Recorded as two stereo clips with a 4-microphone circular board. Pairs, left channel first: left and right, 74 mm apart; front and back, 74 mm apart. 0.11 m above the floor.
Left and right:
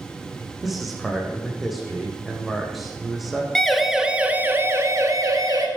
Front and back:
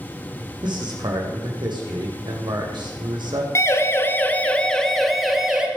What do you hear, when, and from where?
0.6 s a man speaking: straight behind, 5.5 m
3.5 s a siren: 10° left, 2 m; by 5.7 s 100° right, 3 m